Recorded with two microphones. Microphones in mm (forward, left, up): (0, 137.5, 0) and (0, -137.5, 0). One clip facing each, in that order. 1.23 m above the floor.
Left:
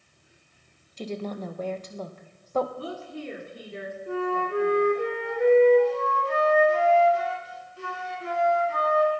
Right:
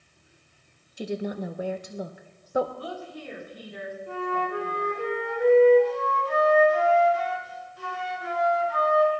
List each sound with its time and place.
1.0 s a woman speaking: 10° right (ahead or behind), 1.1 m
2.8 s a woman speaking: 30° left (ahead or behind), 3.5 m
4.1 s a flute: 30° left (ahead or behind), 3.5 m